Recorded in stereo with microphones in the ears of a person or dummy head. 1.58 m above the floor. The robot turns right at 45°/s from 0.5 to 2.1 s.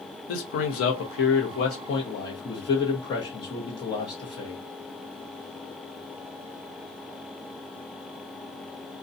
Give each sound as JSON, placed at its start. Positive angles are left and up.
{"t": 0.3, "sound": "a man speaking", "azimuth_deg": 85, "distance_m": 0.8}